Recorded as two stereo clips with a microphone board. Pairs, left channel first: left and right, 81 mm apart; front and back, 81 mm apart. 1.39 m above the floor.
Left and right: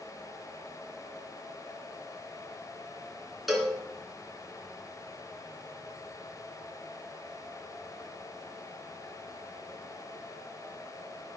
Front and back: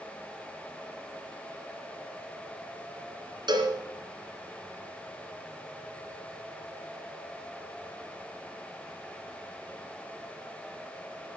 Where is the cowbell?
Straight behind, 3 m.